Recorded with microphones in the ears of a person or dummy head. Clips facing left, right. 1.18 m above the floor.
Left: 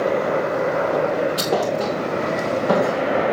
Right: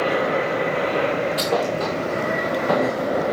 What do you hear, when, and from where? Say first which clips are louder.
1.4 s a thud: left 1 dB; 10° left (ahead or behind), 2 m